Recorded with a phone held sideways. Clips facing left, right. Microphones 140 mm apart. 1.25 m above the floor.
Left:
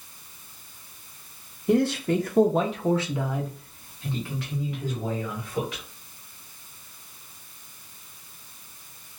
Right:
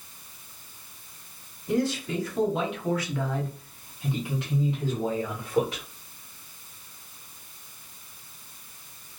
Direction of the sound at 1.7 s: 65° left (ahead or behind).